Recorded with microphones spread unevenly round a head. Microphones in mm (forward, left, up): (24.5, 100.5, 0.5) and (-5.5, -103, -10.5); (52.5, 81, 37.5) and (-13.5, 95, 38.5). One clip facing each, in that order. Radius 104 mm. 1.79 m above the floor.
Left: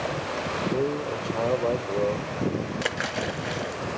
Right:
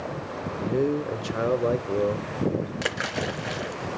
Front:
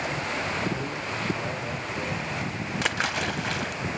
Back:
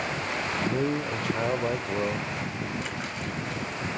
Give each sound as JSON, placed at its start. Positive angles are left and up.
{"t": 0.6, "sound": "a man speaking", "azimuth_deg": -170, "distance_m": 0.8}
{"t": 2.8, "sound": "a splash", "azimuth_deg": -10, "distance_m": 1.0}